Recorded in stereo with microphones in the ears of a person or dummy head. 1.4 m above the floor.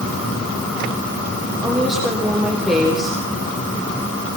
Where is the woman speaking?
5° right (ahead or behind), 4 m.